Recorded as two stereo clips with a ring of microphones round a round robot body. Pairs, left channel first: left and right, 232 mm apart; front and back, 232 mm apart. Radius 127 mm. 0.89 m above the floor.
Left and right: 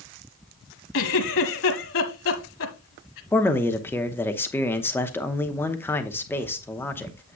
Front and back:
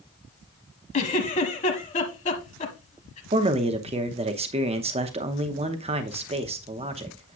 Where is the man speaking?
160° left, 0.8 m.